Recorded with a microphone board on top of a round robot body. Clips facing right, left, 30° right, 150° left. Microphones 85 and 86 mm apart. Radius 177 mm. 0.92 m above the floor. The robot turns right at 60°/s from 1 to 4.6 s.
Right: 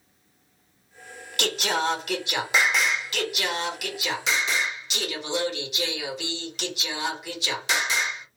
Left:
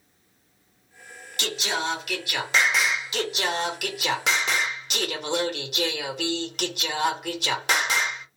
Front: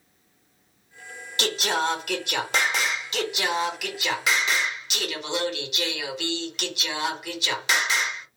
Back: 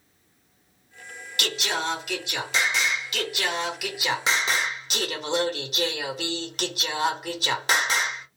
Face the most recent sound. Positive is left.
turn(degrees=110)